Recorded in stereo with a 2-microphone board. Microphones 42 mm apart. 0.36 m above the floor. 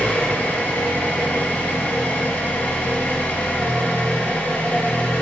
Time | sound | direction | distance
0.0 | an engine running | 45° left (ahead or behind) | 4 m